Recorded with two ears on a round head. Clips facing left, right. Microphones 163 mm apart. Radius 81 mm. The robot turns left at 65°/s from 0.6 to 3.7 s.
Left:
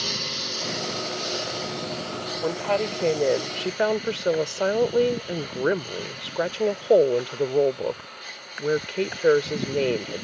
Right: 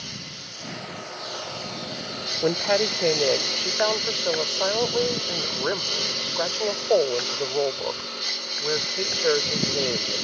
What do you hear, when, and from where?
0.0 s a lawn mower: 80° left; by 10.2 s 125° right
2.4 s a woman speaking: 140° right; by 10.2 s 135° left